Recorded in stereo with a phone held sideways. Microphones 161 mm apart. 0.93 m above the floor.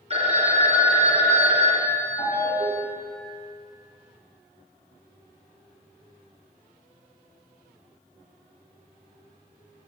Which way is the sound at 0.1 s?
40° right (ahead or behind).